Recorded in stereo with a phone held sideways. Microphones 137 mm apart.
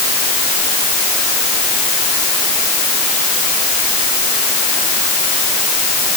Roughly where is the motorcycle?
No motorcycle in this recording.